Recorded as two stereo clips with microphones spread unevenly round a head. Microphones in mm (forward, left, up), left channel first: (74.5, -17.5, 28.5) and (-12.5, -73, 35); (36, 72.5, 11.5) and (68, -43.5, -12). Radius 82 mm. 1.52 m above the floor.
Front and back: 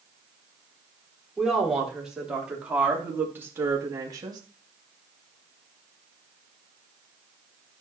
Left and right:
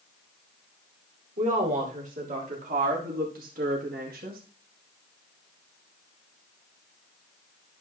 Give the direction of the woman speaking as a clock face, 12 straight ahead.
2 o'clock.